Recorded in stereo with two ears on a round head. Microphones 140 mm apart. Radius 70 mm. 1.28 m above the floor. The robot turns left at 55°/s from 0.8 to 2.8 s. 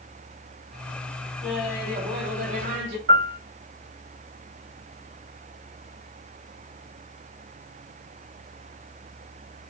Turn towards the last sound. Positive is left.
turn(degrees=-65)  # may be behind; listen again after turning